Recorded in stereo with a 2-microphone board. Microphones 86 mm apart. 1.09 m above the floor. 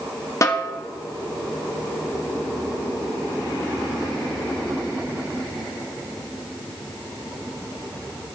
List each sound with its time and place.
0.4 s a snare drum: 40° left (ahead or behind), 0.9 m